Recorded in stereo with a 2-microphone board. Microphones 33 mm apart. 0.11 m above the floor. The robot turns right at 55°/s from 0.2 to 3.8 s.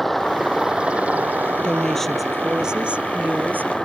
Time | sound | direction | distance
0.0 | a helicopter | 5° left (ahead or behind) | ?
1.6 | a woman speaking | 150° left | ?